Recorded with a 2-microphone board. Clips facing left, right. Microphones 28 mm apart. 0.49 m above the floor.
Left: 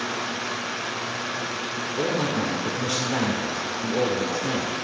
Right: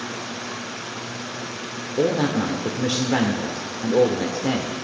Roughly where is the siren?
I don't hear a siren.